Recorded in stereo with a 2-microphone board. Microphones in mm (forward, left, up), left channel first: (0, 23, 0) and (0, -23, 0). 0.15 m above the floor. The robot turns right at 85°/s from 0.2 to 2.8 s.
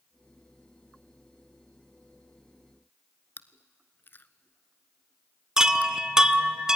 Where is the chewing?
50° left (ahead or behind), 0.8 m.